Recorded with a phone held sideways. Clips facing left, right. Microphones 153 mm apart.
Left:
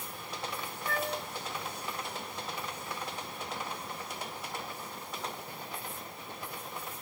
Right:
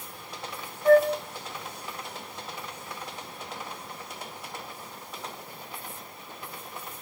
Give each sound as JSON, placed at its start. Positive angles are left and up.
{"t": 0.8, "sound": "a flute", "side_deg": -65, "distance_m": 1.4}